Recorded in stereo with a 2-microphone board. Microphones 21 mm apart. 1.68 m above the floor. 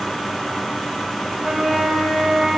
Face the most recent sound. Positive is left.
turn(degrees=-40)  # may be behind; listen again after turning